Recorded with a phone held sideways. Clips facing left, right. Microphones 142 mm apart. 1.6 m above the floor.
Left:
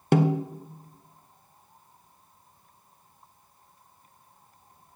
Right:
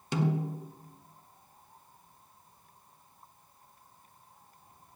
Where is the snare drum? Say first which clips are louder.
Left 7 dB; 60° left (ahead or behind), 0.9 m.